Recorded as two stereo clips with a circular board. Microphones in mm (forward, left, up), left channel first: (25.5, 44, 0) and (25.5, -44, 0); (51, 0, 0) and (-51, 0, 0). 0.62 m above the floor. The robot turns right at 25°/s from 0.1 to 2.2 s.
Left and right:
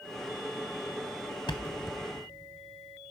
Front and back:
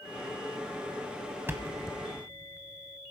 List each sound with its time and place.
1.5 s a thud: 110° left, 0.9 m; by 2.0 s 125° left, 0.9 m